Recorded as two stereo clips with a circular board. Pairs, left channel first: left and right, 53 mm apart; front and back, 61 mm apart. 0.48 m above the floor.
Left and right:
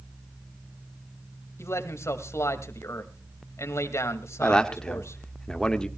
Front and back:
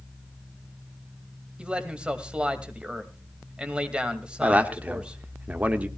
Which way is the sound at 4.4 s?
145° left.